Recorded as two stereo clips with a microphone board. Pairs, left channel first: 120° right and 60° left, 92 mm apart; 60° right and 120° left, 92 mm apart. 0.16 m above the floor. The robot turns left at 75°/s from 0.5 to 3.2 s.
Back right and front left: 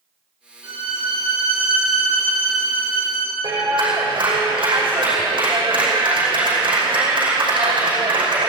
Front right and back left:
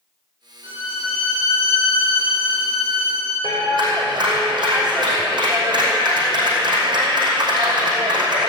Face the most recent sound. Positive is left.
turn(degrees=90)